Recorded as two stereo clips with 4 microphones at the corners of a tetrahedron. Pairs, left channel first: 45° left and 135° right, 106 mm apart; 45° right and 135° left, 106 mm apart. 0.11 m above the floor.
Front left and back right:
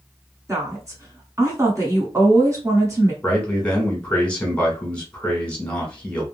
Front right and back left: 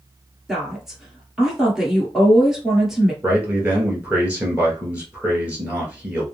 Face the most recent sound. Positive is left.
turn(degrees=95)